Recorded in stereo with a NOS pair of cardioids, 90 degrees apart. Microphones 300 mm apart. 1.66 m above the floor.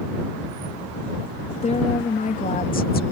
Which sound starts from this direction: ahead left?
A woman speaking, at 1.6 s.